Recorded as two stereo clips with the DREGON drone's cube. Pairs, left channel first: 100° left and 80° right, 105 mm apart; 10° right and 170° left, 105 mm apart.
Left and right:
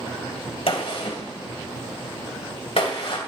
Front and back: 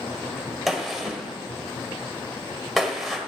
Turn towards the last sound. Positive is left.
turn(degrees=80)